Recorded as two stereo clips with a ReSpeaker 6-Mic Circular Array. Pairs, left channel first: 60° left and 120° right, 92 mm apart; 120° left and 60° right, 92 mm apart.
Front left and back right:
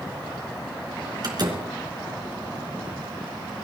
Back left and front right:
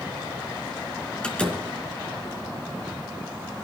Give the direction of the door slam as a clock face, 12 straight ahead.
5 o'clock.